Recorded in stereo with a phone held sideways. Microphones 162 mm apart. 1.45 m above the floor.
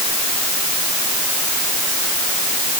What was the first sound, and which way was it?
Only background noise.